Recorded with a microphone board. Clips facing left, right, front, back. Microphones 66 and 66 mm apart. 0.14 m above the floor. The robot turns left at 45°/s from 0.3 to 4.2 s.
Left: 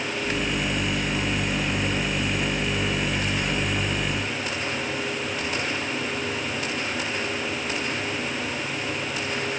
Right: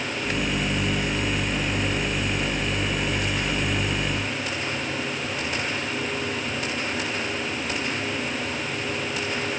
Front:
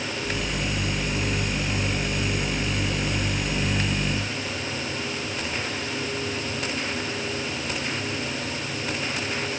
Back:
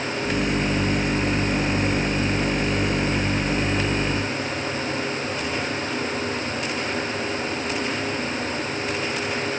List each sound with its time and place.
Only background noise.